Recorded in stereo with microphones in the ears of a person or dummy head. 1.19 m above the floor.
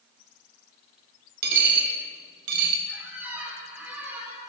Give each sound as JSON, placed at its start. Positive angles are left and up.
{"t": 1.4, "sound": "a dropped coin", "side_deg": -60, "distance_m": 1.2}
{"t": 2.9, "sound": "a squeak", "side_deg": -15, "distance_m": 3.5}